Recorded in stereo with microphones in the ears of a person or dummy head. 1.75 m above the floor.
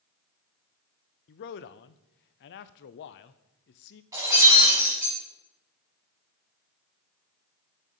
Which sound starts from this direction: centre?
Breaking glass, at 4.1 s.